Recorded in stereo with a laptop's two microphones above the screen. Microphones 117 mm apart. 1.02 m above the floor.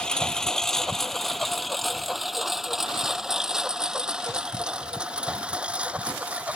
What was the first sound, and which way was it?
A lawn mower, 5° left (ahead or behind).